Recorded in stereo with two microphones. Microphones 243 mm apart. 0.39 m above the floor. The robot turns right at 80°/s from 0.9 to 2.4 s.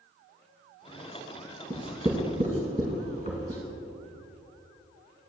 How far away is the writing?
About 1.7 m.